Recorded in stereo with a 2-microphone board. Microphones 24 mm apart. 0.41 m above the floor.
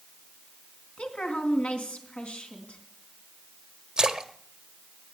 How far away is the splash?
About 1.1 m.